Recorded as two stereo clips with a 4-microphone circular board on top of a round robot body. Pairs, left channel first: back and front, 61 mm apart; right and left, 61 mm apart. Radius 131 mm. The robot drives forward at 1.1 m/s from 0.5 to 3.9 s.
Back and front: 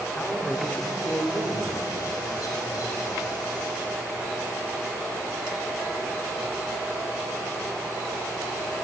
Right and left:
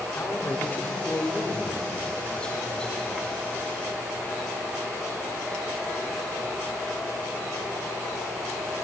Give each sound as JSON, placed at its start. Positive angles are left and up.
{"t": 0.1, "sound": "a man speaking", "azimuth_deg": -115, "distance_m": 1.7}